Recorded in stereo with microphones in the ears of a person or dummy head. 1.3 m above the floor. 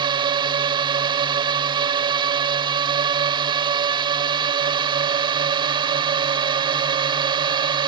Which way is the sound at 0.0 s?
20° right (ahead or behind).